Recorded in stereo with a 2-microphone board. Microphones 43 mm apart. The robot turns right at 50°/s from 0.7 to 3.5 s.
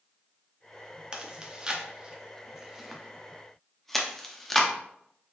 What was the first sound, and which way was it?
Chewing, 20° right (ahead or behind).